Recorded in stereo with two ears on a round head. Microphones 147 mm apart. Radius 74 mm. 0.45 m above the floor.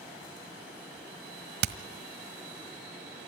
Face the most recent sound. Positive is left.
turn(degrees=-65)  # may be behind; listen again after turning